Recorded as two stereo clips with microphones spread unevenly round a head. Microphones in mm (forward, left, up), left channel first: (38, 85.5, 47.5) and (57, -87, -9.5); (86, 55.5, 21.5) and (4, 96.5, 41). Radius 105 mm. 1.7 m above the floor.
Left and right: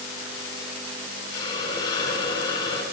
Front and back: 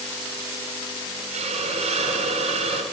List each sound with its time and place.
1.3 s a hiss: 165° left, 8.5 m